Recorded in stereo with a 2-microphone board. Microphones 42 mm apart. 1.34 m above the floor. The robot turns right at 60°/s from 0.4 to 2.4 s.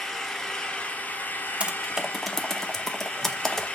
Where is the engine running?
10° left, 1.0 m; by 3.8 s 130° left, 1.0 m.